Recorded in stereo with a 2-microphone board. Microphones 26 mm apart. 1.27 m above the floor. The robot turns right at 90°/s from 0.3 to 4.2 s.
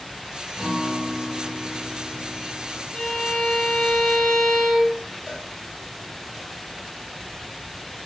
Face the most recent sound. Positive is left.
turn(degrees=-15)  # may be behind; listen again after turning